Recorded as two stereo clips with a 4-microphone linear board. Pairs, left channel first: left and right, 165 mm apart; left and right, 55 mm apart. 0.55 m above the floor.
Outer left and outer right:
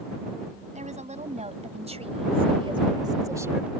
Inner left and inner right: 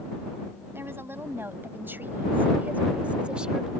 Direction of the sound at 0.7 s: 45° right (ahead or behind).